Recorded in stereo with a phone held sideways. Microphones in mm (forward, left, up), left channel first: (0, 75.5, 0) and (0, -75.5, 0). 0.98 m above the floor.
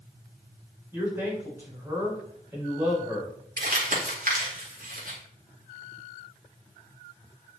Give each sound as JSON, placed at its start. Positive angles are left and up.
{"t": 0.9, "sound": "a man speaking", "side_deg": -15, "distance_m": 4.0}
{"t": 3.6, "sound": "crumpling", "side_deg": -60, "distance_m": 2.0}